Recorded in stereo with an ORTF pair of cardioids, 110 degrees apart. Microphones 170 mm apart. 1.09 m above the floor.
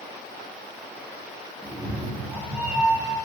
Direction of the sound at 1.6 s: 10° right.